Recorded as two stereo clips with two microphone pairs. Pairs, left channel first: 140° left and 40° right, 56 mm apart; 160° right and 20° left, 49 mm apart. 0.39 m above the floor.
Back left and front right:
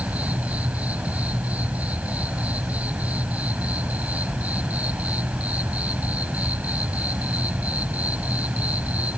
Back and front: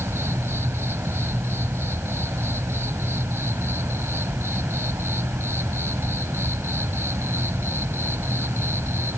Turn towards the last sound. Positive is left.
turn(degrees=20)